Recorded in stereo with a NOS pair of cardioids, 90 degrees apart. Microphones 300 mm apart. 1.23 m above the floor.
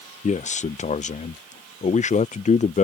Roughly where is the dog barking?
No dog barking in this recording.